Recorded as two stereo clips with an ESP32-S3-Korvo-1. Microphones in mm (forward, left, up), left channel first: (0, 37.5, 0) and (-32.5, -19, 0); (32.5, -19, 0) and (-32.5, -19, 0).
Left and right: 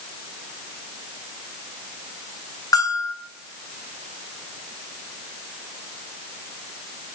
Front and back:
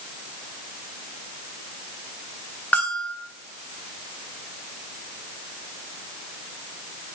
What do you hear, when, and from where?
2.7 s a bell: 65° left, 3 m